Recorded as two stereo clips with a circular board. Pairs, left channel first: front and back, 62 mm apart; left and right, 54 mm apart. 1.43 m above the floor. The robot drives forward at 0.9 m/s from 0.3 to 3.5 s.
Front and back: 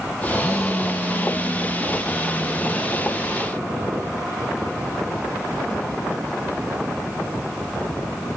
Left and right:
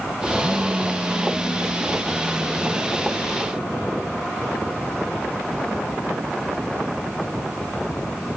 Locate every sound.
0.4 s a phone buzzing: 60° right, 0.5 m; by 3.4 s 175° right, 2.5 m